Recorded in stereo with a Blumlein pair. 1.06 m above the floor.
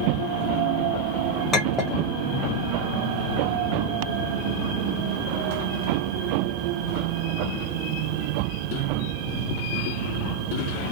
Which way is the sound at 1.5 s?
15° left.